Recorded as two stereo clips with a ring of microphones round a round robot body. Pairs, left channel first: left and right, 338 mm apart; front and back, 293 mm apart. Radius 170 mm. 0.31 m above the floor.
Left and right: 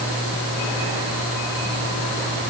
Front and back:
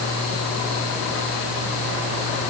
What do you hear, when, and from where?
Only background noise.